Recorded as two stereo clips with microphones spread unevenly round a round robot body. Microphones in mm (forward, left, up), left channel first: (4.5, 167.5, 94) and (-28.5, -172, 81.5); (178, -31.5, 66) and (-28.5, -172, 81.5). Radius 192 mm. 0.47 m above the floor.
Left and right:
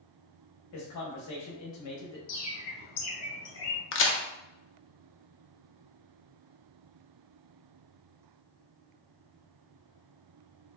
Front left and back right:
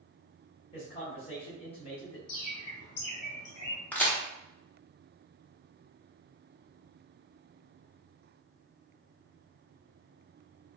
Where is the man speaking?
90° left, 1.3 m.